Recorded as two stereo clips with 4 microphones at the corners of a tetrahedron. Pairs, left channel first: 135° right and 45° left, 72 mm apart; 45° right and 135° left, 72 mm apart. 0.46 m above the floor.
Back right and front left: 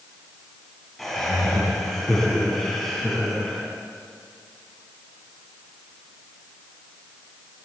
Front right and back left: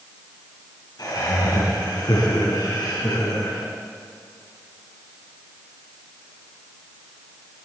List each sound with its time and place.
1.0 s laughter: 50° right, 4.5 m